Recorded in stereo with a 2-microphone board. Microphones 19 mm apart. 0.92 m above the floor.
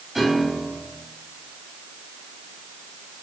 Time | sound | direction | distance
0.1 | a piano | 5° right (ahead or behind) | 4.5 m